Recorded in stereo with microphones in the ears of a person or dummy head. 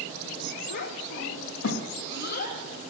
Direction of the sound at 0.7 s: 55° left (ahead or behind).